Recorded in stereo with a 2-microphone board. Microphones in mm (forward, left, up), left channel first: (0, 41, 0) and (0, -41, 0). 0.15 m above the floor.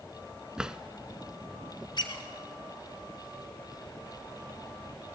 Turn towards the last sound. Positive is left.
turn(degrees=60)  # may be behind; listen again after turning